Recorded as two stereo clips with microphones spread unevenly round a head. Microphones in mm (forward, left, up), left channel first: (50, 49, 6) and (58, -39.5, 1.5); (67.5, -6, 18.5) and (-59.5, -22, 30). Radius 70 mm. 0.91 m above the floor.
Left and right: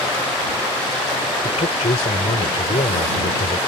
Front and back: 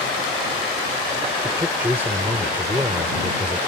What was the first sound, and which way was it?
A man speaking, 110° left.